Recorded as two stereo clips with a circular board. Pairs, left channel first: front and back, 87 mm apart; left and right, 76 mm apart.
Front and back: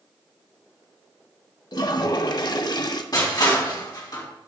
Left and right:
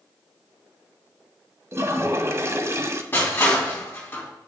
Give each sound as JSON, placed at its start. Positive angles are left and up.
{"t": 1.7, "sound": "a toilet flushing", "azimuth_deg": -35, "distance_m": 0.5}
{"t": 3.1, "sound": "crushing", "azimuth_deg": 30, "distance_m": 2.5}